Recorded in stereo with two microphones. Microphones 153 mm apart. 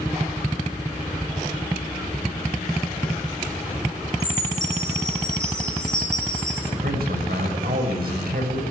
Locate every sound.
4.2 s a chime: 50° right (ahead or behind), 7 m
6.7 s a man speaking: 80° right, 6.5 m